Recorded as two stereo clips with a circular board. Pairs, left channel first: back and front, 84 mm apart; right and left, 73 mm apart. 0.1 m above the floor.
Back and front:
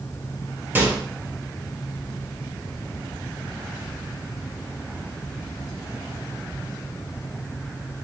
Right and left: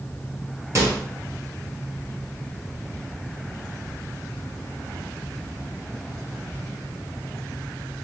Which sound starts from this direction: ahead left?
A microwave, at 0.8 s.